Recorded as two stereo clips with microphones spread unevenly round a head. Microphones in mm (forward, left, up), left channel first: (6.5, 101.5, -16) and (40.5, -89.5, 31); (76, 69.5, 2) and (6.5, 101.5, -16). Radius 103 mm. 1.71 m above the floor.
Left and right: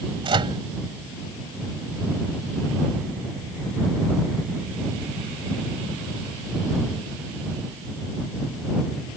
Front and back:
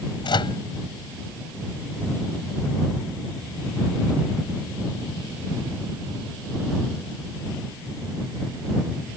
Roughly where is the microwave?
Ahead.